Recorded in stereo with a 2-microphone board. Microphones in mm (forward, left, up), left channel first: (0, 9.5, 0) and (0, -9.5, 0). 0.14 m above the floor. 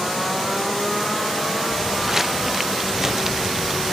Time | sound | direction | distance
1.7 | footsteps | 20° right (ahead or behind) | ?